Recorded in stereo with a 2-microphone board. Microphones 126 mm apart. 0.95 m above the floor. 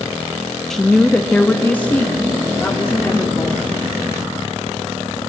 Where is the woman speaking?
5° left (ahead or behind), 0.5 m; by 3.6 s 15° left (ahead or behind), 2.5 m.